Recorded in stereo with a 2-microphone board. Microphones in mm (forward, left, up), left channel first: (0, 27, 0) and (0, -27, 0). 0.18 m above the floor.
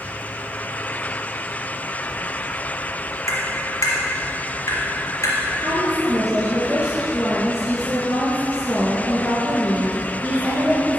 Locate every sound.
3.3 s tapping: 65° left (ahead or behind), 3 m
5.6 s a woman speaking: 10° right (ahead or behind), 3 m